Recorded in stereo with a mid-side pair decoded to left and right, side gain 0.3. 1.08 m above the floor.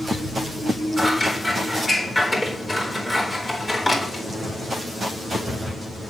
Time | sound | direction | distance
1.0 | scissors | 35° left | 3.5 m